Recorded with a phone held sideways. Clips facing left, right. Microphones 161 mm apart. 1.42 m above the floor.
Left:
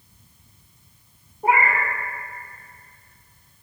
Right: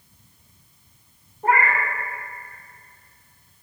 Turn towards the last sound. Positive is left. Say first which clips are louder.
# left 1 dB
turn(degrees=10)  # may be behind; listen again after turning